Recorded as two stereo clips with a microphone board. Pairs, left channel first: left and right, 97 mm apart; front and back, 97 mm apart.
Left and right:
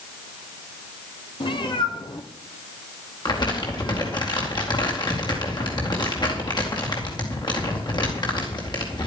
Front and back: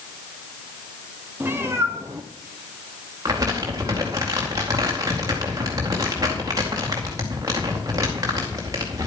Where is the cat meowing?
115° left, 1.5 m; by 4.2 s 140° left, 3 m.